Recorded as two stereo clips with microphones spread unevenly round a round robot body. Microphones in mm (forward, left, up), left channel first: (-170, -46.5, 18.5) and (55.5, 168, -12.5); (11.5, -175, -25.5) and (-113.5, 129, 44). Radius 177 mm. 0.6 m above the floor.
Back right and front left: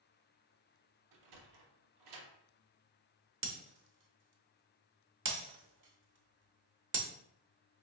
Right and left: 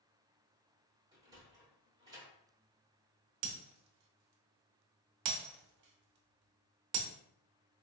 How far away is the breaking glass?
About 0.8 m.